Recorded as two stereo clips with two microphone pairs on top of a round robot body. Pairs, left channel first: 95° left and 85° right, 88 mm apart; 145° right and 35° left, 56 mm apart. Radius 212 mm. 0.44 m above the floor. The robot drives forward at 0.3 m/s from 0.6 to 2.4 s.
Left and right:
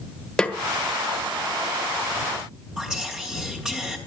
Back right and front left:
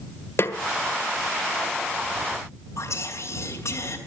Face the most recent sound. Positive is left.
turn(degrees=-165)